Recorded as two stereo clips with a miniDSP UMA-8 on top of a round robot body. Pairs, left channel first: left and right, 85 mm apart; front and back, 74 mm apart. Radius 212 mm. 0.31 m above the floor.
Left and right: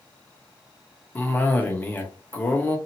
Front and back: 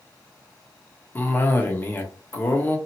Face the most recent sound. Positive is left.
turn(degrees=40)